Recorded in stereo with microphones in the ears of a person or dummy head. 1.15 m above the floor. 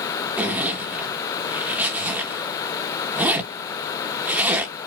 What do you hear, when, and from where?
0.4 s a zipper: 10° right (ahead or behind), 1.2 m